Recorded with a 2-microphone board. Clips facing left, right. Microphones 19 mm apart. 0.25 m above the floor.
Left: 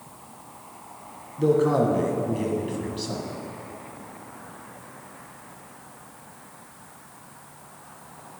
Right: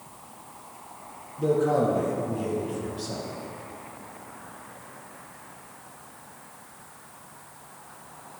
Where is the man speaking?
45° left (ahead or behind), 1.7 m; by 3.3 s 50° left (ahead or behind), 1.6 m.